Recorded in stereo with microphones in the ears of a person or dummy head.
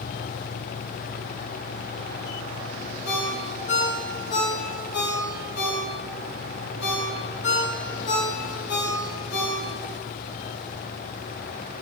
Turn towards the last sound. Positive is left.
turn(degrees=65)  # may be behind; listen again after turning